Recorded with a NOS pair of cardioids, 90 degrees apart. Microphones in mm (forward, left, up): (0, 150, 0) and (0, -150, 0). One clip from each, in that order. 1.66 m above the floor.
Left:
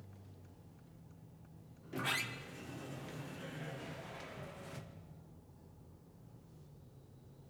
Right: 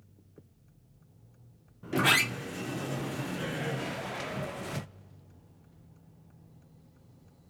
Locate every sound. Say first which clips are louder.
1.8 s a sliding door: right 13 dB; 60° right, 0.8 m